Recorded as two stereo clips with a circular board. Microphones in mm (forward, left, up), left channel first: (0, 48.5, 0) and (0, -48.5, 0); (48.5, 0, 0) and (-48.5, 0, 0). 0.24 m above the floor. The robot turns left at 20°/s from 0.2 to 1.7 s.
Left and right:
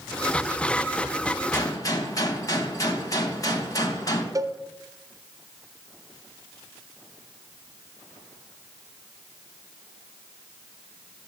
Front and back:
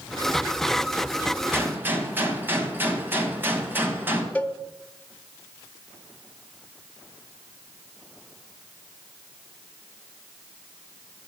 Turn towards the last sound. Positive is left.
turn(degrees=-65)